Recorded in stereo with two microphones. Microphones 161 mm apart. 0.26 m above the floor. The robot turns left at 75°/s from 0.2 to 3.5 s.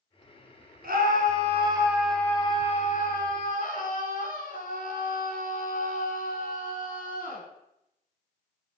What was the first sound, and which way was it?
A scream, 85° right.